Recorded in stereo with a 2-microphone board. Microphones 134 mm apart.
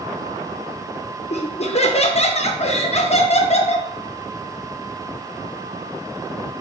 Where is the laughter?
50° left (ahead or behind), 0.6 m.